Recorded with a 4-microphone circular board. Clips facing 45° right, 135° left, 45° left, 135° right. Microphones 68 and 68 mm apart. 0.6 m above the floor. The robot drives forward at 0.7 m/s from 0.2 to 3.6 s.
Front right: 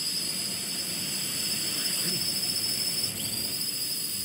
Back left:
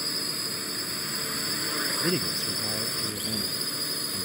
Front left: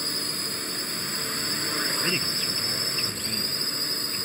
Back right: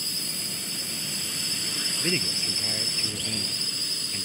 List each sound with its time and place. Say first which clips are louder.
0.0 s a drone: back left 4 dB, front left 5 dB; 90° left; by 4.3 s 95° left
2.0 s a man speaking: back left 9 dB, front left 1 dB; 150° left